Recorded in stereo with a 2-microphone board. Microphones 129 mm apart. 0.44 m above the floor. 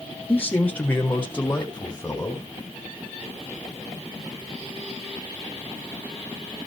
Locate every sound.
0.3 s a man speaking: 15° left (ahead or behind), 1.2 m